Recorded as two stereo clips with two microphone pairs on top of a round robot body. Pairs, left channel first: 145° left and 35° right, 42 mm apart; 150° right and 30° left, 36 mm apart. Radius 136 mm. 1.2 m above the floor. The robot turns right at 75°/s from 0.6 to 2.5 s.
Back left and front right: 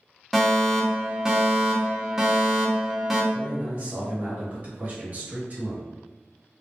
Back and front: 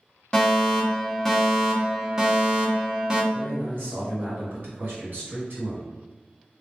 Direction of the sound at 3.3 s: 15° left.